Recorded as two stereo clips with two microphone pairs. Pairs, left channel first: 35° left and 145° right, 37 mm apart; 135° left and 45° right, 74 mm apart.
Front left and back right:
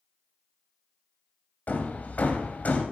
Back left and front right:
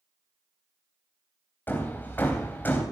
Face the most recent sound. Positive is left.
turn(degrees=75)